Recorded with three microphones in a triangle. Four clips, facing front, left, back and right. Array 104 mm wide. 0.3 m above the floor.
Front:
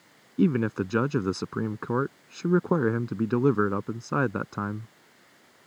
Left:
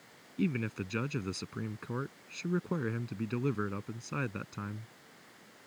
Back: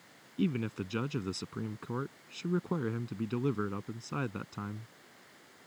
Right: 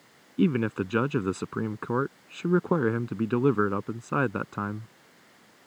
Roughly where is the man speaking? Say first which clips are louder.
Right 9 dB, front 9 dB; ahead right.